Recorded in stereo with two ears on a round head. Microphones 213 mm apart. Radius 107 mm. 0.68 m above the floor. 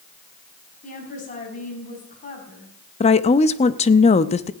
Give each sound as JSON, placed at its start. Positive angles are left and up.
{"t": 0.8, "sound": "a woman speaking", "side_deg": 30, "distance_m": 4.5}
{"t": 3.0, "sound": "a woman speaking", "side_deg": 25, "distance_m": 0.6}